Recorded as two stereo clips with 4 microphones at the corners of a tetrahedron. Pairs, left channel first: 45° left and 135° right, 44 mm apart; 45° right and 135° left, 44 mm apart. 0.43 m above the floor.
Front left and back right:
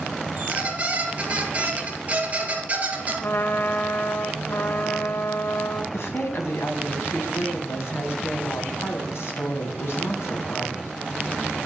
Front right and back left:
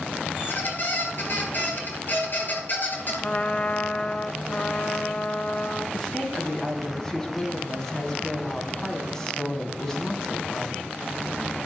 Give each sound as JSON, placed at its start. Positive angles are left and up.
{"t": 0.4, "sound": "a squeak", "azimuth_deg": -80, "distance_m": 3.5}
{"t": 3.2, "sound": "a trumpet", "azimuth_deg": 15, "distance_m": 1.1}
{"t": 5.9, "sound": "a woman speaking", "azimuth_deg": 30, "distance_m": 3.0}